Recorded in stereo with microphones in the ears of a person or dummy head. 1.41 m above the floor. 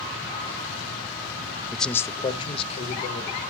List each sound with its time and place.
1.7 s a man speaking: 5° right (ahead or behind), 0.5 m; by 3.4 s 40° left (ahead or behind), 1.7 m